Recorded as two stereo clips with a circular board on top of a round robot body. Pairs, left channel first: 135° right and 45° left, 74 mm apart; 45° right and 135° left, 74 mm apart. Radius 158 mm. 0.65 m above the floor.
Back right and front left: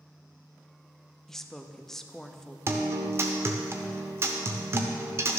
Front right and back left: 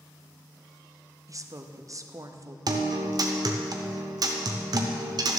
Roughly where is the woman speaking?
Behind left.